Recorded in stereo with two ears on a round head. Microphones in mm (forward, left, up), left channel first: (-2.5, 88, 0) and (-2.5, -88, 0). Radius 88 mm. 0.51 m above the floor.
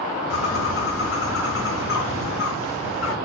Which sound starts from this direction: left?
A bird, at 0.3 s.